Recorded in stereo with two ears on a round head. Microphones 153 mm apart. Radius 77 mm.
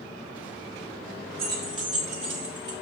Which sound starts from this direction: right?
Keys jangling, at 1.4 s.